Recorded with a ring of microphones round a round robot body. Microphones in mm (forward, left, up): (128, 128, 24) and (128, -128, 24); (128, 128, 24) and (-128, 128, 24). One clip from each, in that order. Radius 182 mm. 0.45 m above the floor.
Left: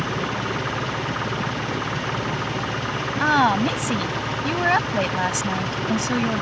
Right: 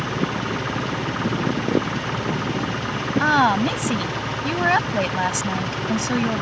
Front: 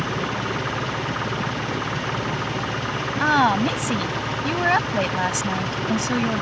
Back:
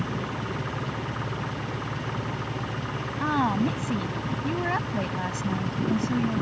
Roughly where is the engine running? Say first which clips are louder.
Even, front 7 dB; ahead.